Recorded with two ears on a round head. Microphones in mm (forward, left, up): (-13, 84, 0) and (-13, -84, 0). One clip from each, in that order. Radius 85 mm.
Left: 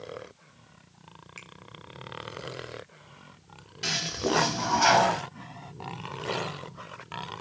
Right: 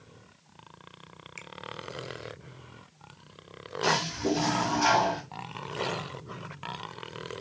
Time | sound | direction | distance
1.4 | a finger snap | 15° right (ahead or behind) | 1.4 m
3.8 | a toilet flushing | 20° left (ahead or behind) | 1.9 m